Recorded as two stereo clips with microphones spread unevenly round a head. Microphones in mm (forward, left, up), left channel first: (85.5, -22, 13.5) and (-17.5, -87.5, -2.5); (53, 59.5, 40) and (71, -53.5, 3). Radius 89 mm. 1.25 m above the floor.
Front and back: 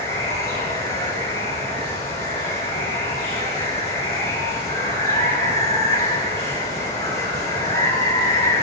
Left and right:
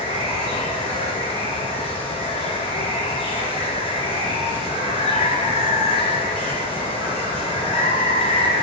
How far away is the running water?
About 6.5 m.